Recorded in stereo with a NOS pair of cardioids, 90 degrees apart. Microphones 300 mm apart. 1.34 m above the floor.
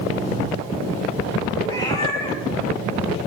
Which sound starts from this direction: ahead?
A cat meowing, at 1.6 s.